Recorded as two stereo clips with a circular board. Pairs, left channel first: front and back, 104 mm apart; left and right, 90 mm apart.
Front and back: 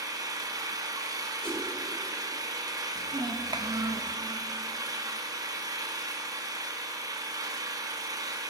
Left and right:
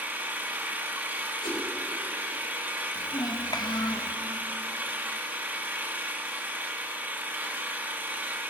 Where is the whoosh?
80° left, 4.5 m.